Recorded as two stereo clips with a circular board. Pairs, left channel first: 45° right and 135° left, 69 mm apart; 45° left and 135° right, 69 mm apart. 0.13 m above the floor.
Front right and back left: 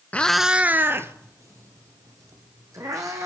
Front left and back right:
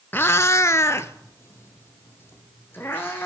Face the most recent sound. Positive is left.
turn(degrees=100)